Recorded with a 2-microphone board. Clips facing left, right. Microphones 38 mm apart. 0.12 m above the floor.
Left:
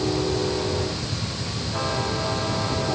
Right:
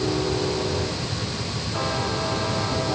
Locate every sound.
Only background noise.